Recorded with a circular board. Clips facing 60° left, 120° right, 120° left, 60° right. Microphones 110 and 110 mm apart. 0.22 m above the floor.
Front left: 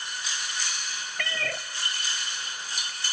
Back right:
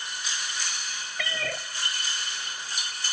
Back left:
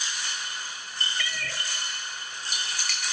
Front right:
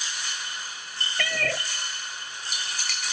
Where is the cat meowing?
35° right, 0.6 m.